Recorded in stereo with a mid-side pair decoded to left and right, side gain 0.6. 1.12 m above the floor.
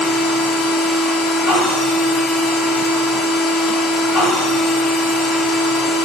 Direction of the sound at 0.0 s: 50° left.